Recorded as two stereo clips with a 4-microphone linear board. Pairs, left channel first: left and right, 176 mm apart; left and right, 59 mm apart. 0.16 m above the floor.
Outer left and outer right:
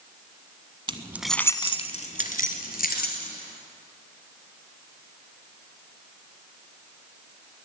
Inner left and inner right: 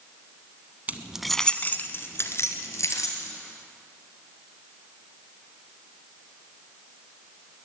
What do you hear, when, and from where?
0.9 s keys jangling: 30° right (ahead or behind), 0.8 m; by 3.3 s 65° left (ahead or behind), 2.5 m